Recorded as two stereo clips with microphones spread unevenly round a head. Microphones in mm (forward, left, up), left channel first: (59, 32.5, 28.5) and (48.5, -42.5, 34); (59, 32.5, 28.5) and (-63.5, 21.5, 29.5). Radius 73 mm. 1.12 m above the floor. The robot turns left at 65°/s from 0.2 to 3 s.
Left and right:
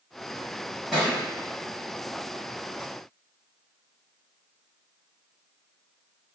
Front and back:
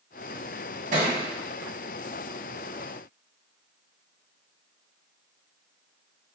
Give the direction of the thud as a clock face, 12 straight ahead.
6 o'clock.